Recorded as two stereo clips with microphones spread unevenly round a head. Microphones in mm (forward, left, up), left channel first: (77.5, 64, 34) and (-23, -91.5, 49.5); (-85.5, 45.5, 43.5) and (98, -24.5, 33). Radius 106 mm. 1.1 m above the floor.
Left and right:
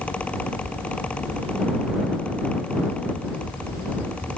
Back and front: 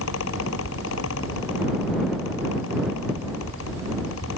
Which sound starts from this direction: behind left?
A fan, at 0.0 s.